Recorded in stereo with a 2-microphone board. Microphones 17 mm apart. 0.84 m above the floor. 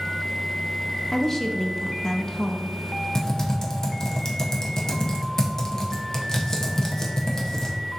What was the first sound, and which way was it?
A woman speaking, 20° left (ahead or behind).